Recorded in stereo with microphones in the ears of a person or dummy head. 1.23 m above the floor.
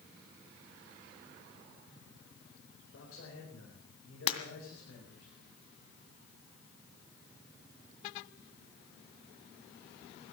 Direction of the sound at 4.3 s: 35° left (ahead or behind).